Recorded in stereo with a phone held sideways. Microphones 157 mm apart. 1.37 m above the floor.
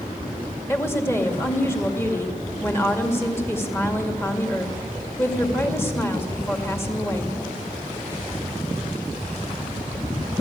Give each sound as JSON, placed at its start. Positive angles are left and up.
{"t": 0.7, "sound": "a woman speaking", "side_deg": 15, "distance_m": 2.0}